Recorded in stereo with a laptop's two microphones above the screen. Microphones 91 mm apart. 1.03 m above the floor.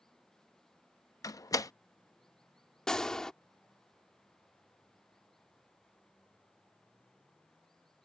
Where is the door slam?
40° left (ahead or behind).